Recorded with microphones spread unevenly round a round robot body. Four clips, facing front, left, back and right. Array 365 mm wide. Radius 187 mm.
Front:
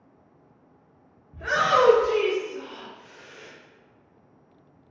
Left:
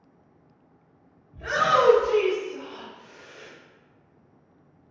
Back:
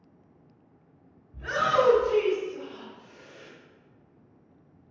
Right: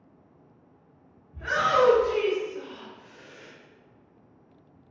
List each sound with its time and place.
1.3 s a shout: 5° right, 0.7 m; by 3.5 s 75° left, 1.1 m